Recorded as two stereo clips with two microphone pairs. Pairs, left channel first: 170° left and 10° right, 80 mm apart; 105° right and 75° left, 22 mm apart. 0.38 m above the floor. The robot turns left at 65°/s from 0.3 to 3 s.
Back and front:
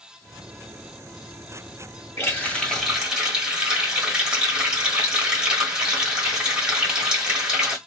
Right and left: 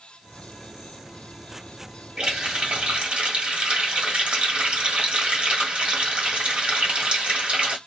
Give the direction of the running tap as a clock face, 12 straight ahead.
8 o'clock.